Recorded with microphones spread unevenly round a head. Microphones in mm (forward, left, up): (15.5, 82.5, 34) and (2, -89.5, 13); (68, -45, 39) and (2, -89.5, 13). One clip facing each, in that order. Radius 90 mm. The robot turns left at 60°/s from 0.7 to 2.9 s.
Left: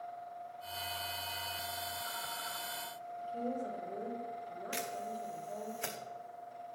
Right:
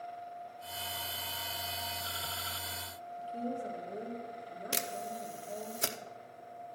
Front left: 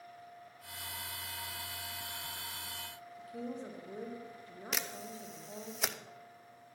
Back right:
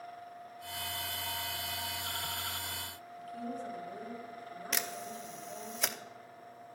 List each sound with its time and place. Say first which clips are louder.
3.2 s a woman speaking: even, back right 2 dB; 25° right, 1.7 m
4.7 s a camera shutter: right 2 dB, back right 1 dB; 50° right, 0.7 m